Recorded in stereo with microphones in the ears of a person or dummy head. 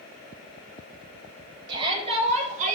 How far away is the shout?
About 2.5 m.